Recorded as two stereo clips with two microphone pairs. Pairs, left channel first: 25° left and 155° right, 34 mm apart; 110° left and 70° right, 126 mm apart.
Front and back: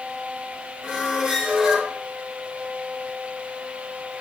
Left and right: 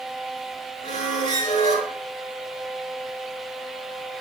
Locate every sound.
0.8 s a squeak: 125° left, 4.5 m